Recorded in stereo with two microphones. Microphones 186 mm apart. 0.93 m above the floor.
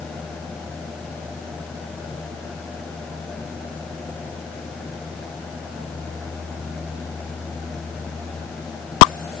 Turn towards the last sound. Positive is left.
No sound to turn to.